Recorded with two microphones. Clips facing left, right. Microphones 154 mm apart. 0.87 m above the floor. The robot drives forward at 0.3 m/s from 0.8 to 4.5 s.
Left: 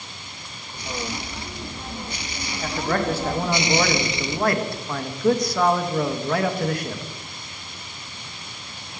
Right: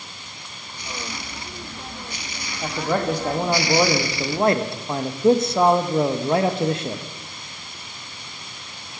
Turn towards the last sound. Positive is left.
turn(degrees=-25)  # may be behind; listen again after turning